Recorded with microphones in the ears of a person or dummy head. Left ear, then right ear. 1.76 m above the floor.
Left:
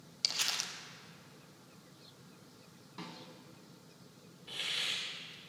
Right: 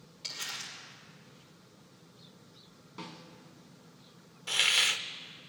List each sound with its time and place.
0.2 s crumpling: 60° left (ahead or behind), 1.4 m
3.0 s a snare drum: centre (ahead or behind), 1.4 m
4.5 s a hiss: 50° right (ahead or behind), 0.6 m